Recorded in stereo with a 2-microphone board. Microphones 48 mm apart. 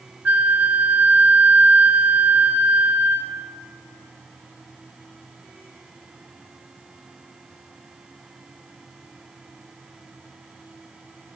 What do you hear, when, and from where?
0.2 s a flute: 35° right (ahead or behind), 0.7 m